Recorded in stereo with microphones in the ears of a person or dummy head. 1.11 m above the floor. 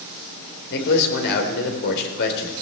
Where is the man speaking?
55° left (ahead or behind), 3.5 m.